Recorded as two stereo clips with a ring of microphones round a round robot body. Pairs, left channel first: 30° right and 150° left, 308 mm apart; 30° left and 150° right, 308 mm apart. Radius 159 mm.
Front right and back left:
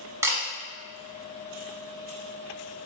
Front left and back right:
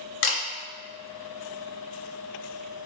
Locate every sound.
0.2 s a camera shutter: 70° left, 0.8 m